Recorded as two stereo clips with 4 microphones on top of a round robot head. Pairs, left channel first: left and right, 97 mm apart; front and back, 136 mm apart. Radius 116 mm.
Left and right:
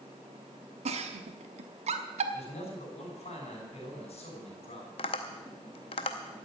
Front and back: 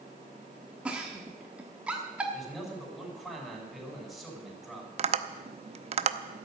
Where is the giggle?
95° right, 1.0 m.